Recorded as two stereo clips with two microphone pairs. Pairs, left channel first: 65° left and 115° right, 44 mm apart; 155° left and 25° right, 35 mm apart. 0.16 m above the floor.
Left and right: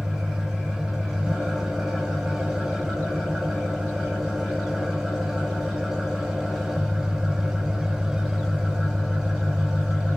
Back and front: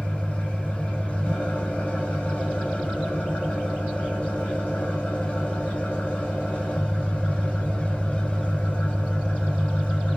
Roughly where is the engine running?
Behind.